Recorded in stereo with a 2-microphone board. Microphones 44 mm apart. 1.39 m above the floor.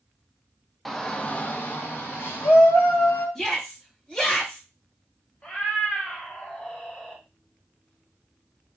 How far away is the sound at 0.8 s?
About 0.6 m.